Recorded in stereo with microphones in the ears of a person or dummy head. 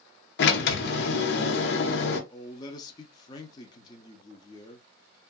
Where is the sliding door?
50° left (ahead or behind), 0.6 m.